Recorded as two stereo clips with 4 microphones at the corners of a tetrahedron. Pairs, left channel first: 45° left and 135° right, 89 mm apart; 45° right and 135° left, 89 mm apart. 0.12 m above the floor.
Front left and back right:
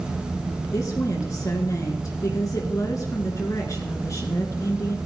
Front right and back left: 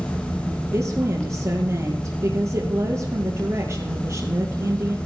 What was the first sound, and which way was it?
A woman speaking, 90° left.